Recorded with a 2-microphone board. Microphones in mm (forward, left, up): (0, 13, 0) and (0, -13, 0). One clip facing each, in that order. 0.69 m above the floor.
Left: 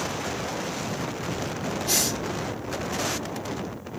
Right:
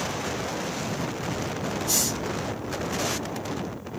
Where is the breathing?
40° left (ahead or behind), 1.8 m.